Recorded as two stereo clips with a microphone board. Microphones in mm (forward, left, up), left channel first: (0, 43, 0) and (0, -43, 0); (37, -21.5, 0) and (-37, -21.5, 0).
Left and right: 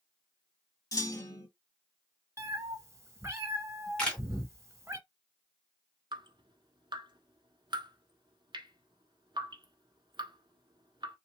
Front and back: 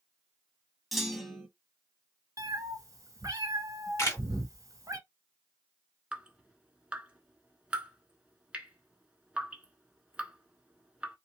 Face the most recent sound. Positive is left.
turn(degrees=-105)